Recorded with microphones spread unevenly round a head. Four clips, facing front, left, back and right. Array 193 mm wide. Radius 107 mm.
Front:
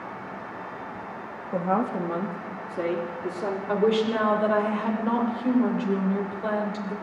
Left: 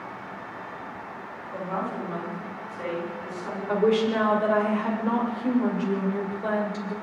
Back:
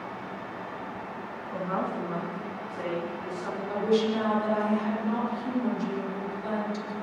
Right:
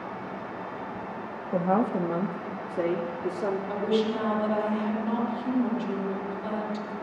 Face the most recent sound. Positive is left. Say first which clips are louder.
# left 8 dB, front 2 dB
turn(degrees=45)